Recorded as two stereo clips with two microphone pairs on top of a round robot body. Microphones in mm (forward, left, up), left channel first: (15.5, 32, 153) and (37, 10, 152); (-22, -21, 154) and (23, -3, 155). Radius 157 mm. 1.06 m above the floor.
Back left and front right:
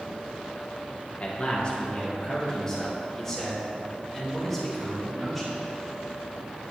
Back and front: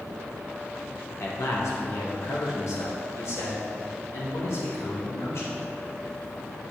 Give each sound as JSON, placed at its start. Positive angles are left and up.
{"t": 1.2, "sound": "a man speaking", "azimuth_deg": 180, "distance_m": 1.4}